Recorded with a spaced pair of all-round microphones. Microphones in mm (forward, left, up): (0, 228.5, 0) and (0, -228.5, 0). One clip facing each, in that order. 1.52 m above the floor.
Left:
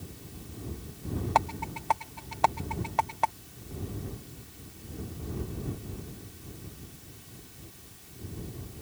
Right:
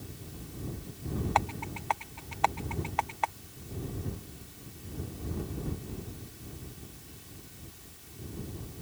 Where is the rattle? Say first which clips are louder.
Left 2 dB; 60° left (ahead or behind).